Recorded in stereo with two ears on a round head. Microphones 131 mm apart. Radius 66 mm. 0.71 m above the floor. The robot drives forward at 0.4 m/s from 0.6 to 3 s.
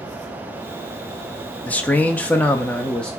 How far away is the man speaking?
About 0.5 m.